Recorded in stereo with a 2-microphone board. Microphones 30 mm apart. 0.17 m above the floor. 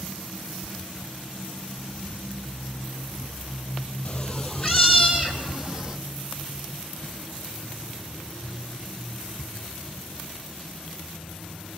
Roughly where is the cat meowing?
Left.